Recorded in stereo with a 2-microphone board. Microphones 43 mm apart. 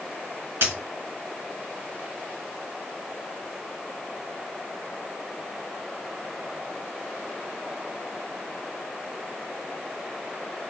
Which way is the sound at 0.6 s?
70° right (ahead or behind).